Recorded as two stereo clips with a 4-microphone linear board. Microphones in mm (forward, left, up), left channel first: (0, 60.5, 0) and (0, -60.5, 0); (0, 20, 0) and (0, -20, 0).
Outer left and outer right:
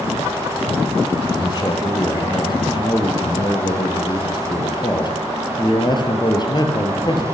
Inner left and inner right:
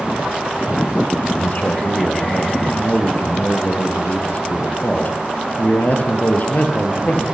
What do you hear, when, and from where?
1.3 s a man speaking: 40° left (ahead or behind), 4.5 m